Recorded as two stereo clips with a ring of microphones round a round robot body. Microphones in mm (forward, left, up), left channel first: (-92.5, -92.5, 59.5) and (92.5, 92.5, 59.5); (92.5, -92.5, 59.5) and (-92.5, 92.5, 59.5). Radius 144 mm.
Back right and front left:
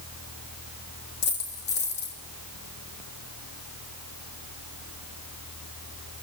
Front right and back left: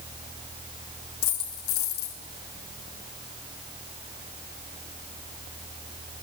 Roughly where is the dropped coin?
Right.